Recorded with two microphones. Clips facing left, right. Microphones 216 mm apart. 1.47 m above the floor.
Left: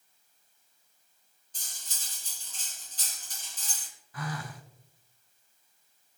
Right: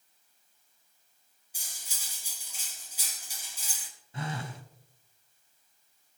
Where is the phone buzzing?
25° right (ahead or behind), 1.1 m.